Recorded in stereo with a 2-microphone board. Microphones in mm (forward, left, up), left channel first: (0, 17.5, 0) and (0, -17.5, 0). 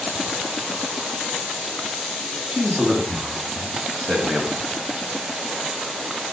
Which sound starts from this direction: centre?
A man speaking, at 2.5 s.